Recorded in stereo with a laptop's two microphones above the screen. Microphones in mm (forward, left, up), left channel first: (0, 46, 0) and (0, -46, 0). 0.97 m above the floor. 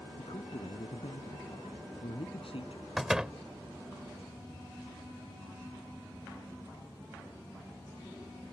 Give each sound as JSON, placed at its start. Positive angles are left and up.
{"t": 0.2, "sound": "a man speaking", "side_deg": 80}
{"t": 3.0, "sound": "a door slam", "side_deg": -5}